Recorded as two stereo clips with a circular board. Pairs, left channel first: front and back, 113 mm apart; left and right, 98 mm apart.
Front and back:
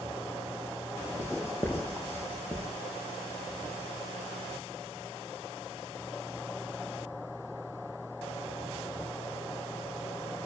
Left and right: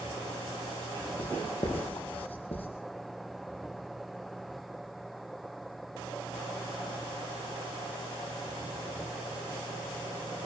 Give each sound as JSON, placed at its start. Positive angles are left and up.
{"t": 1.2, "sound": "writing", "azimuth_deg": 75, "distance_m": 4.0}